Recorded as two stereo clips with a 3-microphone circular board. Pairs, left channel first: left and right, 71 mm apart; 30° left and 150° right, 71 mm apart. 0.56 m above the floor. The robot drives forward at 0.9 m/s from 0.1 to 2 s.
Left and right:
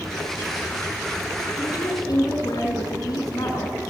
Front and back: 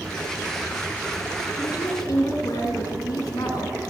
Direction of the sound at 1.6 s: 55° left.